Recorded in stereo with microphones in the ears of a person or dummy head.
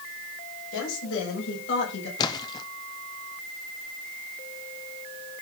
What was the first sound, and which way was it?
A woman speaking, 80° left.